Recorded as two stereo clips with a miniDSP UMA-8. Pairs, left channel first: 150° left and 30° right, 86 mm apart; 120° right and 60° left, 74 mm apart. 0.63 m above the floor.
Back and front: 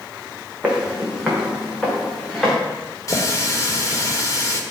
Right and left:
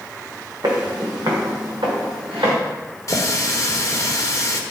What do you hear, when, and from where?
0.6 s footsteps: 45° left, 2.5 m; by 2.5 s 60° left, 4 m
3.1 s a running tap: 165° right, 1.1 m